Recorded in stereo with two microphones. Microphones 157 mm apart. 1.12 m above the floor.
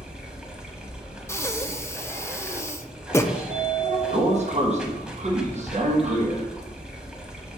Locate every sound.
0.0 s running water: 5° right (ahead or behind), 1.0 m
1.3 s breathing: 15° left (ahead or behind), 0.5 m
3.3 s a sliding door: 45° right (ahead or behind), 1.0 m